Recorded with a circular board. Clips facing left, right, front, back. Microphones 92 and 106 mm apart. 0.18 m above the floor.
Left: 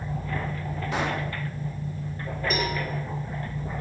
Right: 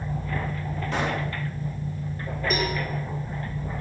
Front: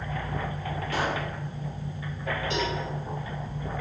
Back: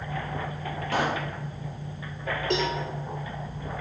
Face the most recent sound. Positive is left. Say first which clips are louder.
# right 1 dB, back 4 dB
turn(degrees=180)